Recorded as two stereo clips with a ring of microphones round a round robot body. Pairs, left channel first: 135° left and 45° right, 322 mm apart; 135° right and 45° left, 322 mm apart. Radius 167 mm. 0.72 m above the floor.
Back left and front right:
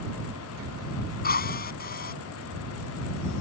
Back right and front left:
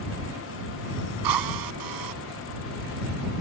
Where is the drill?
70° left.